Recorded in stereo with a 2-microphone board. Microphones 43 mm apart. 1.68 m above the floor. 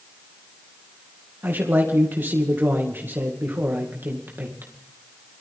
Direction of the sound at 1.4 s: 50° right (ahead or behind).